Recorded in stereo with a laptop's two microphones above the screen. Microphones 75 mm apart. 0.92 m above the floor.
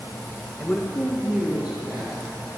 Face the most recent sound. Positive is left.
turn(degrees=-15)  # may be behind; listen again after turning